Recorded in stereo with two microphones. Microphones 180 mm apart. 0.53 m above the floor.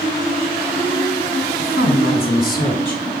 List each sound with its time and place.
1.6 s a woman speaking: 75° left (ahead or behind), 3.5 m; by 3.0 s 55° left (ahead or behind), 3.5 m